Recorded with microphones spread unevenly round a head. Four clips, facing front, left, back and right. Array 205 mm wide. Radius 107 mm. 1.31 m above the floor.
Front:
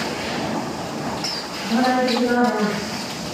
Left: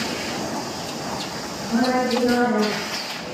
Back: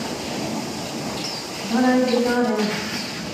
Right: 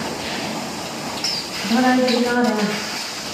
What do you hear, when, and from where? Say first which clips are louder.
1.6 s a woman speaking: right 4 dB, back 1 dB; 60° right, 6.5 m